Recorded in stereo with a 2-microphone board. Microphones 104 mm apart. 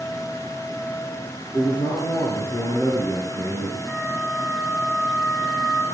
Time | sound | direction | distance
1.5 | a man speaking | 50° left (ahead or behind) | 4 m
3.9 | a flute | 5° right (ahead or behind) | 2.5 m